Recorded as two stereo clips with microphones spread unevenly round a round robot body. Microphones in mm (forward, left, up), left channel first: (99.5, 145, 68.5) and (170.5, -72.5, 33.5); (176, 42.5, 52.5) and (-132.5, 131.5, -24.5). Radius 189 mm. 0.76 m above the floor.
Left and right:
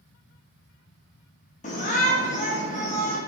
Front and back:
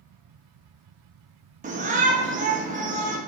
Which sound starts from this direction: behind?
A shout, at 1.6 s.